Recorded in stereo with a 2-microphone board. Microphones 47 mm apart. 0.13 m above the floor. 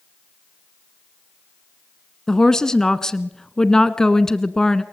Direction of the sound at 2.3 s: 15° left (ahead or behind).